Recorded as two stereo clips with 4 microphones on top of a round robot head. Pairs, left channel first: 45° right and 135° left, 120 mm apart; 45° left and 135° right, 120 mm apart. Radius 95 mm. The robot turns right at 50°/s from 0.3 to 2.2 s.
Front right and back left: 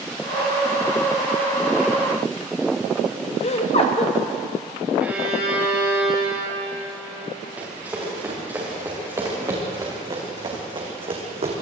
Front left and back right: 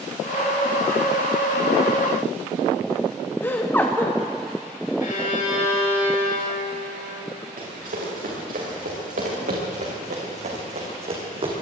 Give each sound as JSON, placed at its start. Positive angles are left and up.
{"t": 3.4, "sound": "laughter", "azimuth_deg": -30, "distance_m": 1.6}
{"t": 5.0, "sound": "a violin", "azimuth_deg": 55, "distance_m": 6.0}
{"t": 7.6, "sound": "running footsteps", "azimuth_deg": -145, "distance_m": 8.0}